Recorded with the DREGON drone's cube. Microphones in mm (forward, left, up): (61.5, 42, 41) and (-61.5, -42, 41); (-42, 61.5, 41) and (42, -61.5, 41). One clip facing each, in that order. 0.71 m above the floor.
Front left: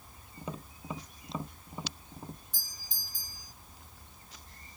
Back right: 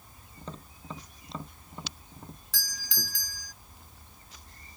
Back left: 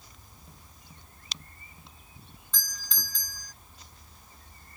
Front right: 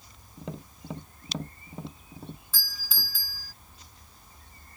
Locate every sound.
0.4 s tapping: 45° right
2.5 s a doorbell: 140° right